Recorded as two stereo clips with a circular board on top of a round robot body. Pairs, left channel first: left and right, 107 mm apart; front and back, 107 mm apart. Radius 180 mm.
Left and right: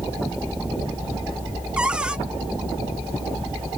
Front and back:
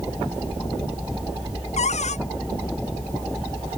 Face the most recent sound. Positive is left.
turn(degrees=-10)